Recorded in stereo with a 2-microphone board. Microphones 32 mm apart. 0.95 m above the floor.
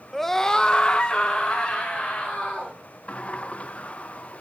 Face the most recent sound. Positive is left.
turn(degrees=40)  # may be behind; listen again after turning